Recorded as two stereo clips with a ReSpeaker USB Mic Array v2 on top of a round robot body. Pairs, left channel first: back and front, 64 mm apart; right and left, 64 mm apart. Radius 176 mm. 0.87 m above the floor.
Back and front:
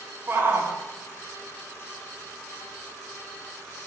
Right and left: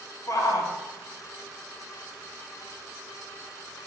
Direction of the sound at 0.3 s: 55° right.